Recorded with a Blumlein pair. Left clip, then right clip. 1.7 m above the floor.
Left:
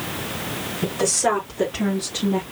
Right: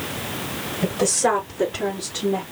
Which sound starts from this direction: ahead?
A woman speaking, at 0.8 s.